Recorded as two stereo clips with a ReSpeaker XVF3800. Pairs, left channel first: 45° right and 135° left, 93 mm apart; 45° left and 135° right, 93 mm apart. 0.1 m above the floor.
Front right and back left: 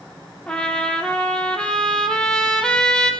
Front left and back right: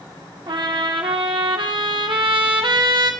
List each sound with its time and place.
0.5 s a trumpet: 125° right, 2 m